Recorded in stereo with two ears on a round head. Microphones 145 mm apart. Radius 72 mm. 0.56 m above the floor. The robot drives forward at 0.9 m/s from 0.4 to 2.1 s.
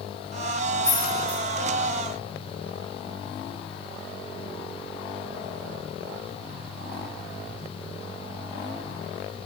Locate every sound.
0.8 s keys jangling: 5° right (ahead or behind), 2.5 m; by 1.4 s 10° right (ahead or behind), 2 m